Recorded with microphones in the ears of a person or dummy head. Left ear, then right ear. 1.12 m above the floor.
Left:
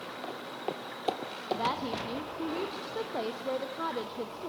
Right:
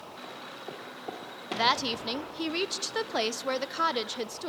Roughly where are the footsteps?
Left.